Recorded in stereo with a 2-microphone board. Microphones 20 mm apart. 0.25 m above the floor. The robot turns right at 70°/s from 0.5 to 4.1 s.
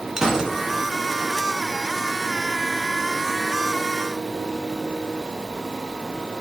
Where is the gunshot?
30° right (ahead or behind), 1.6 m.